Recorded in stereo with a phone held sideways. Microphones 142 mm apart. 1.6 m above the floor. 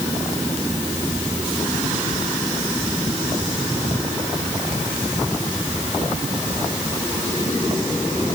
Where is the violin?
I don't hear a violin.